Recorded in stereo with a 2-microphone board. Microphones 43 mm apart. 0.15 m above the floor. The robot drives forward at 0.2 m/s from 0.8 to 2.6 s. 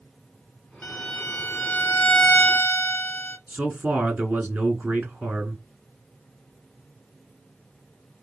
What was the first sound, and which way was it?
A violin, 45° left (ahead or behind).